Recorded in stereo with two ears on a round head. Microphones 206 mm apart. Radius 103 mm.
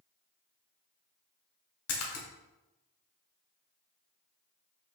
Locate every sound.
1.9 s a splash: 70° left (ahead or behind), 1.0 m